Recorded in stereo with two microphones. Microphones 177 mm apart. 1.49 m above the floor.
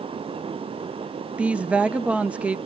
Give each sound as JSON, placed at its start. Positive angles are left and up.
{"t": 1.4, "sound": "a woman speaking", "side_deg": -5, "distance_m": 0.6}